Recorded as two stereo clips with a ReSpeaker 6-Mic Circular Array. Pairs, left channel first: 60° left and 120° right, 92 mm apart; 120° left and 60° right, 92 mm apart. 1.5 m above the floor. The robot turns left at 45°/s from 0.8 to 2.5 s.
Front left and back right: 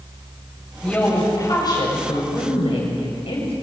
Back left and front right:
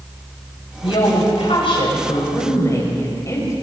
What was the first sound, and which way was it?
A woman speaking, 140° left.